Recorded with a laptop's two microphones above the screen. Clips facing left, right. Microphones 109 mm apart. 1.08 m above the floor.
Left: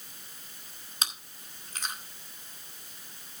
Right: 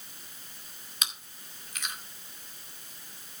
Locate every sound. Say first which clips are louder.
1.0 s chewing: left 2 dB; 35° left (ahead or behind), 2 m